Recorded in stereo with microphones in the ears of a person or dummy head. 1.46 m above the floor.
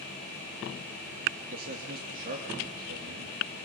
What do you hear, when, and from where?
1.5 s a man speaking: 55° right (ahead or behind), 2.5 m